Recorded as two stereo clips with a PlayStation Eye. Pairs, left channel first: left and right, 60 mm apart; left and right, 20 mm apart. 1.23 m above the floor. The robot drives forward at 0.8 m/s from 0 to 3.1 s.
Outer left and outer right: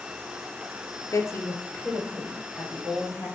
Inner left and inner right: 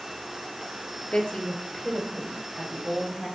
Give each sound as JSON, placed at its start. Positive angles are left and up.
{"t": 1.1, "sound": "a woman speaking", "side_deg": 60, "distance_m": 0.5}